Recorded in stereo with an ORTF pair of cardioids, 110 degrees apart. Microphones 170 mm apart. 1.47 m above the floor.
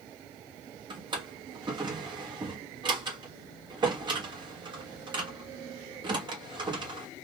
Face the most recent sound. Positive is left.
turn(degrees=-30)